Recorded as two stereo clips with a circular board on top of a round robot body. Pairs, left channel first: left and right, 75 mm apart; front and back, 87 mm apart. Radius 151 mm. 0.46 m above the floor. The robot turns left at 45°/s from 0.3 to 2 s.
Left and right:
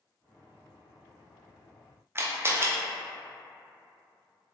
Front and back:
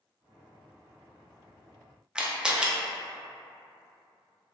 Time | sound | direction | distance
2.1 | a camera shutter | 110° right | 0.7 m